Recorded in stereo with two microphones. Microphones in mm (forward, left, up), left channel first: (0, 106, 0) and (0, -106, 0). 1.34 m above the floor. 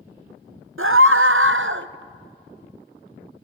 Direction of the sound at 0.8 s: 80° right.